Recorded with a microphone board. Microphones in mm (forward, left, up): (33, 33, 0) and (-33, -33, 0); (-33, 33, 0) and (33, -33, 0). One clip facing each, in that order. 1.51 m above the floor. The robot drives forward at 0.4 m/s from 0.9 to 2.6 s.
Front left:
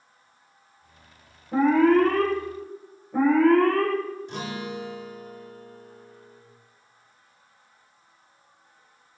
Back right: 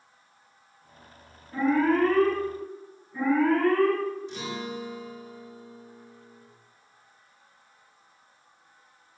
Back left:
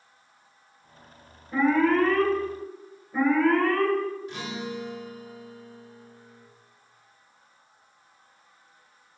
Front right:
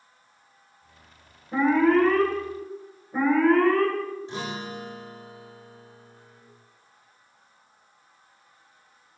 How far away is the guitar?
About 3.5 m.